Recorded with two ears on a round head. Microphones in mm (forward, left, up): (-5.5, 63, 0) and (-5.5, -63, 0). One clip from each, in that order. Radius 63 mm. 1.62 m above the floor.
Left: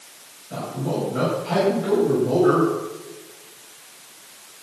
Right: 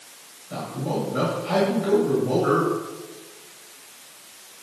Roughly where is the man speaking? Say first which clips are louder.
Left 1 dB; right.